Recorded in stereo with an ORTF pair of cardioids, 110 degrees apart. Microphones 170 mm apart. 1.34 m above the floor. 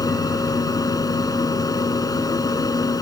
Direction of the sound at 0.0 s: 20° left.